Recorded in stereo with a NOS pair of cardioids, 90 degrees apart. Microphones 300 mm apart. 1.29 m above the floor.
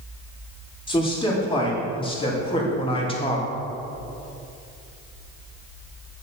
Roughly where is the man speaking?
Ahead.